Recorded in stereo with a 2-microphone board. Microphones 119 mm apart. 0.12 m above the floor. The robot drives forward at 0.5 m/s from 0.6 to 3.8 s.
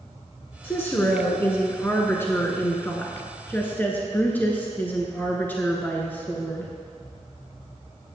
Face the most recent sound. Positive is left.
turn(degrees=15)  # may be behind; listen again after turning